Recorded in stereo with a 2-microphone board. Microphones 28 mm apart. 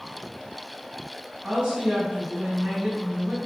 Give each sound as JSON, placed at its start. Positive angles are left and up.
{"t": 1.4, "sound": "a woman speaking", "side_deg": -35, "distance_m": 1.2}